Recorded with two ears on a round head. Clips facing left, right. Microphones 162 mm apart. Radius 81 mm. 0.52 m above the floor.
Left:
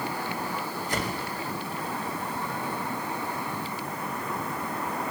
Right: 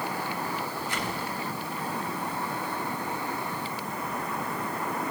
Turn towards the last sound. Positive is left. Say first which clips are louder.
# left 2 dB
turn(degrees=35)  # may be behind; listen again after turning